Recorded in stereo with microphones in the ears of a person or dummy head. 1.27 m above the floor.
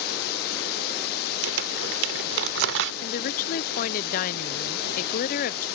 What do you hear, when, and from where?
0.0 s a drone: 55° left (ahead or behind)
1.4 s crumpling: 65° right (ahead or behind)
3.0 s a woman speaking: 40° left (ahead or behind)